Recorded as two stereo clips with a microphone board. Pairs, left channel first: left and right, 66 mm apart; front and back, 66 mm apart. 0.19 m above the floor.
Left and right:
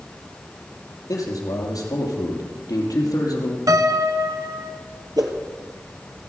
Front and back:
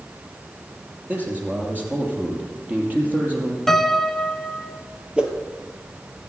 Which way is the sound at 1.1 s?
115° left.